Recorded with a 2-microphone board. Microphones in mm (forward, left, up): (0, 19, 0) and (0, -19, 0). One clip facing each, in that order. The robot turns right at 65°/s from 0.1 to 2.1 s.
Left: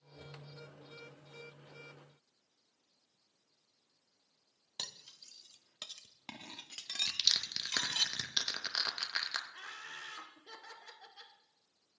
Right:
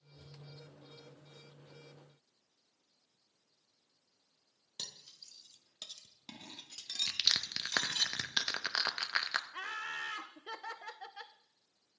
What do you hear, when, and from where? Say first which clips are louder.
4.8 s cutlery clinking: left 2 dB; 40° left (ahead or behind), 0.6 m
7.1 s crushing: right 1 dB; 25° right (ahead or behind), 0.6 m
9.5 s laughter: right 7 dB; 50° right (ahead or behind), 0.7 m